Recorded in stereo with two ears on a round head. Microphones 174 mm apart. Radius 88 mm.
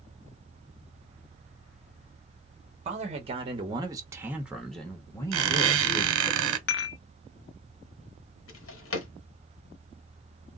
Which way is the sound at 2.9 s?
35° right (ahead or behind).